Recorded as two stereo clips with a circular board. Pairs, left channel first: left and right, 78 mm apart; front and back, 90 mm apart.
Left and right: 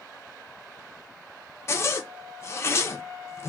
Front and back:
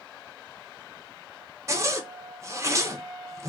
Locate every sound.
1.7 s a zipper: 130° left, 0.5 m